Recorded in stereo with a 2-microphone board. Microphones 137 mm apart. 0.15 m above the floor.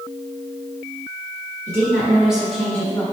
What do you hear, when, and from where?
1.7 s a woman speaking: 30° right (ahead or behind), 1.9 m; by 3.0 s 20° left (ahead or behind), 1.9 m